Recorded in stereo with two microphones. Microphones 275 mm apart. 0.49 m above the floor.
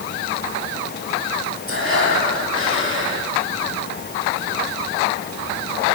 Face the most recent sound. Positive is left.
turn(degrees=-50)  # may be behind; listen again after turning